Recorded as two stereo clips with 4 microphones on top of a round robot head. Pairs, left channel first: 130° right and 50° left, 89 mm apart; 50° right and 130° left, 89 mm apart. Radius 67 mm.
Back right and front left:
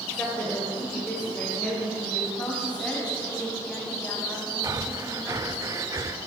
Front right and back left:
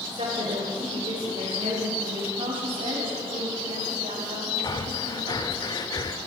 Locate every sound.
0.1 s a woman speaking: 150° left, 2.5 m
2.4 s a woman speaking: 150° left, 3 m
4.6 s breathing: 5° right, 0.7 m